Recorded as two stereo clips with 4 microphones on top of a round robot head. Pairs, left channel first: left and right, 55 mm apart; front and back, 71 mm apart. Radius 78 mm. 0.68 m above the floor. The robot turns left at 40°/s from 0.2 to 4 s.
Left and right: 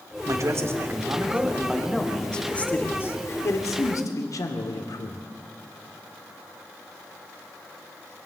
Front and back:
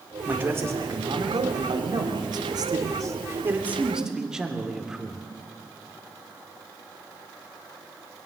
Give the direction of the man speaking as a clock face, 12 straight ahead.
4 o'clock.